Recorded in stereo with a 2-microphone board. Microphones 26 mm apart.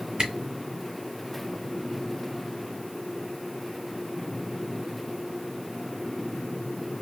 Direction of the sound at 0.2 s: 35° right (ahead or behind).